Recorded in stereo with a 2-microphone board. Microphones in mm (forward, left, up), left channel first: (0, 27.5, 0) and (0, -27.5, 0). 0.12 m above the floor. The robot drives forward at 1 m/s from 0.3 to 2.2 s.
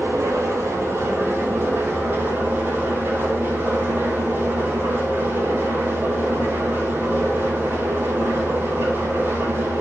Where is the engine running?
60° right (ahead or behind), 3 m; by 9.8 s 40° right (ahead or behind), 4 m.